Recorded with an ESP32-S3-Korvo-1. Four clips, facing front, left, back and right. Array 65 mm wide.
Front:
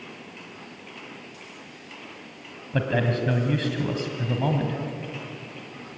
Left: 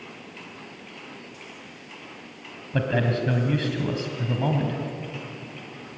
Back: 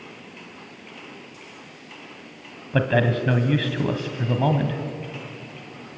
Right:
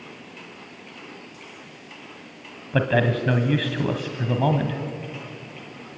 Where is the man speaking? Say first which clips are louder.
Right 3 dB, back 4 dB; 135° right, 1.6 m.